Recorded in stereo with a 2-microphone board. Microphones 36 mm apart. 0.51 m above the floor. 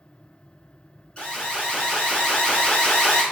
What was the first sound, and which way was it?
An alarm, 25° left (ahead or behind).